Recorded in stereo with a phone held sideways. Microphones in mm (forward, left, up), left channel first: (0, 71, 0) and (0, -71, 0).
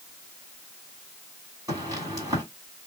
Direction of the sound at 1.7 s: 25° right (ahead or behind).